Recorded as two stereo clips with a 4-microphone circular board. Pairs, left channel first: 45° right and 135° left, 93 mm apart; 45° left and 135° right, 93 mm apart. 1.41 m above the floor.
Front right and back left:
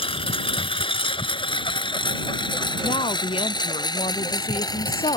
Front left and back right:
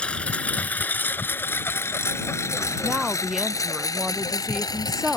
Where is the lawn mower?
30° right; by 5.2 s straight ahead.